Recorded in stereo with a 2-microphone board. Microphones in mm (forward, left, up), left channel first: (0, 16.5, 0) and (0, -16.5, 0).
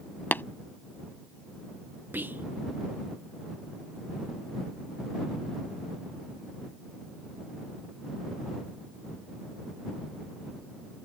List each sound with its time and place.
0.3 s tapping: 65° left (ahead or behind)
2.1 s whispering: 70° right (ahead or behind)